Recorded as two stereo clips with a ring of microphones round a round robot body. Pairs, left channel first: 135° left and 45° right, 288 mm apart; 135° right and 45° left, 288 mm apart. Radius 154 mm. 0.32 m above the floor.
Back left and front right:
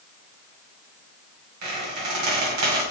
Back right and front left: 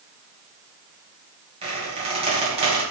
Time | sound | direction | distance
1.6 | a squeak | 25° right | 1.8 m